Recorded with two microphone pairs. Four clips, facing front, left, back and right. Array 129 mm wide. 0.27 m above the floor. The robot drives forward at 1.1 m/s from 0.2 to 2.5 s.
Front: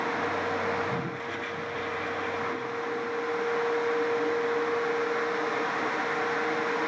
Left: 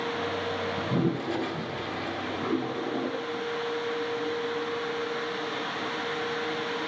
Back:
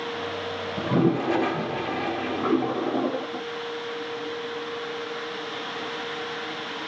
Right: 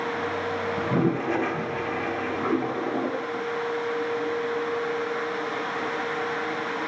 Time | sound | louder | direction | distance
0.8 | a toilet flushing | right 5 dB, back 9 dB | 165° right | ?